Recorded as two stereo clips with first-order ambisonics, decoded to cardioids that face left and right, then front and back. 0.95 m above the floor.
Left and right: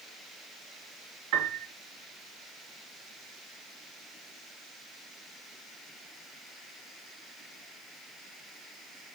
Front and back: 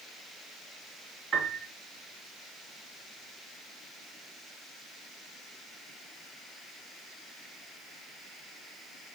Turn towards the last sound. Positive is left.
turn(degrees=-110)